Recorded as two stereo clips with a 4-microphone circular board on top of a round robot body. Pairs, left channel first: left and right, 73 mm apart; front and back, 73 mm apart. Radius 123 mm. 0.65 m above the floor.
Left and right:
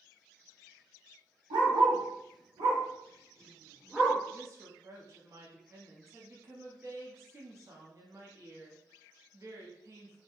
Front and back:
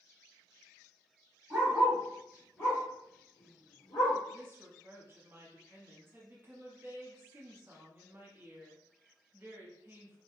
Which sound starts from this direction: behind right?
A woman speaking, at 4.3 s.